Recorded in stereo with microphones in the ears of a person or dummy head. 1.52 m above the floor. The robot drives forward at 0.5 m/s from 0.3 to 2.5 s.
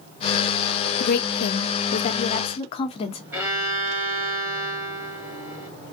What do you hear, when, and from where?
1.0 s a woman speaking: 50° left (ahead or behind), 0.6 m; by 3.2 s 35° left (ahead or behind), 0.7 m
3.3 s a violin: 10° right (ahead or behind), 1.8 m